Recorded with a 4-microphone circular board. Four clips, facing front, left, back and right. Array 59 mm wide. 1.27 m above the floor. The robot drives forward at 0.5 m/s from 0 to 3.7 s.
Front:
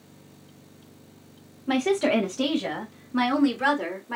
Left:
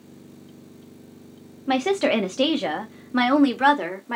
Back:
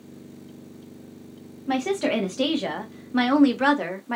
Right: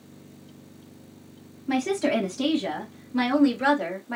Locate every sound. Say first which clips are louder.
1.7 s a woman speaking: left 3 dB, front 1 dB; 85° left, 1.3 m; by 4.2 s 125° left, 1.5 m